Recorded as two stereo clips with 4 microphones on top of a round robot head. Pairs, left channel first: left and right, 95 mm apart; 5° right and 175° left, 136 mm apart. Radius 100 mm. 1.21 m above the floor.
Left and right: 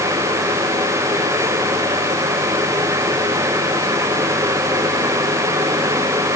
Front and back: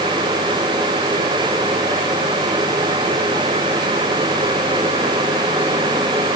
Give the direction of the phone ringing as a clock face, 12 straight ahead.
I don't hear a phone ringing.